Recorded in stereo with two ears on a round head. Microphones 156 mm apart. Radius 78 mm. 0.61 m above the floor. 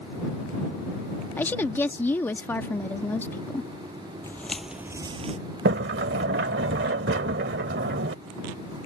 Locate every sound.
1.4 s a woman speaking: 10° left (ahead or behind)
4.2 s footsteps: 15° left (ahead or behind); by 5.4 s 40° right (ahead or behind)
5.7 s a sliding door: 70° right (ahead or behind)